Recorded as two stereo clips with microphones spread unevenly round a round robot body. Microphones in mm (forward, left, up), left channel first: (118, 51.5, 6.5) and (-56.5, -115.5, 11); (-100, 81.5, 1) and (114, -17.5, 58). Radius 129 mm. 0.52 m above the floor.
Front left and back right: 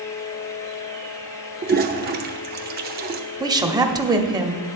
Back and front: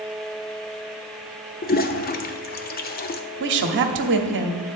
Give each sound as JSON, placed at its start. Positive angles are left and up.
{"t": 1.6, "sound": "a toilet flushing", "azimuth_deg": 175, "distance_m": 0.6}
{"t": 3.4, "sound": "a woman speaking", "azimuth_deg": -65, "distance_m": 1.0}